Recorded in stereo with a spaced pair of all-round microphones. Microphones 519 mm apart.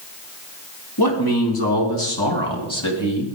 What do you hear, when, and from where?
1.0 s a man speaking: 45° left (ahead or behind), 3 m; by 3.4 s 65° left (ahead or behind), 2.5 m